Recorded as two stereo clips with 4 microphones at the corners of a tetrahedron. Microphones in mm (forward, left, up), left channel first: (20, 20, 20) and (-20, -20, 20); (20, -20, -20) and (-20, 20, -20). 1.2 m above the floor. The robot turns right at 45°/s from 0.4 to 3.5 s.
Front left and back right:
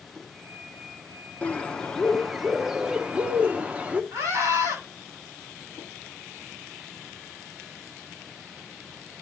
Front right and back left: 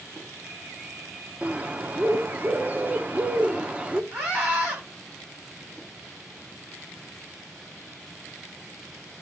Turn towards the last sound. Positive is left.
turn(degrees=-160)